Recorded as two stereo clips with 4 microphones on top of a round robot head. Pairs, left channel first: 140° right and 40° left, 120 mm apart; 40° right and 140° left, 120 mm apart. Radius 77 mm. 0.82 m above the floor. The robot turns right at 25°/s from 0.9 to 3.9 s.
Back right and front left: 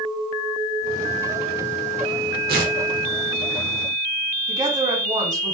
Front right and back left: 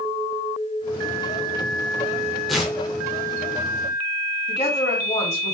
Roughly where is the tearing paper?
Ahead left.